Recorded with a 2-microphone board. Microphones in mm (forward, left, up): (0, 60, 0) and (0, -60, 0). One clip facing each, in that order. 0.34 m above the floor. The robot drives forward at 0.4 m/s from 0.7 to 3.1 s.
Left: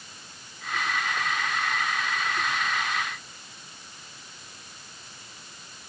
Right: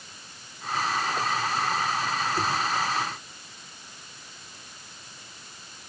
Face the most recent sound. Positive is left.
No sound to turn to.